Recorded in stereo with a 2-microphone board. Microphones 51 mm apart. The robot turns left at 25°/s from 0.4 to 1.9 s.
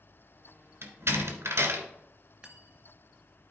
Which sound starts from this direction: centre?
Cutlery clinking, at 2.4 s.